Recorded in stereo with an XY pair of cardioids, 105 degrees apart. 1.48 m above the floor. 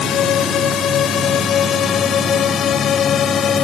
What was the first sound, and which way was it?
A drone, 65° left.